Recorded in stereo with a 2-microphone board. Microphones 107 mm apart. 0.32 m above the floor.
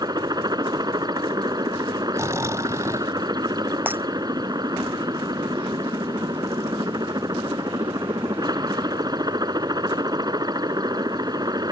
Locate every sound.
0.0 s a helicopter: 35° right (ahead or behind)
2.1 s snoring: 30° right (ahead or behind)
3.9 s breaking glass: 20° right (ahead or behind)